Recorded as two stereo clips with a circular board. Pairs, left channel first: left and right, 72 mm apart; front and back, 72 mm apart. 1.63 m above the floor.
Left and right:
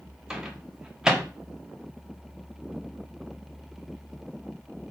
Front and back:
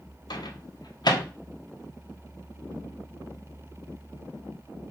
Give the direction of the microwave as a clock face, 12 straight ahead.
12 o'clock.